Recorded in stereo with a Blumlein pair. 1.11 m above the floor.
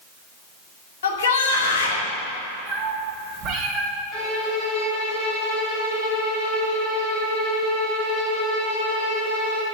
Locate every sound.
1.0 s a shout: 65° left, 2 m
2.7 s a cat meowing: 25° right, 2.5 m
4.1 s a violin: 30° left, 2.5 m